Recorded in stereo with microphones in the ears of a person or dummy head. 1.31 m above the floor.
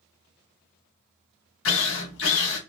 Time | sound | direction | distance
1.6 | a drill | 75° left (ahead or behind) | 1.3 m